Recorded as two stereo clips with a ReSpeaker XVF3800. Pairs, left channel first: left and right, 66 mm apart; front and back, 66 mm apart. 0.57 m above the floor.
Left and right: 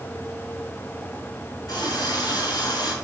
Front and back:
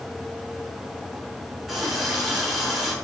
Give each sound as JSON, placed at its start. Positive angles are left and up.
{"t": 1.7, "sound": "a running tap", "azimuth_deg": 90, "distance_m": 5.0}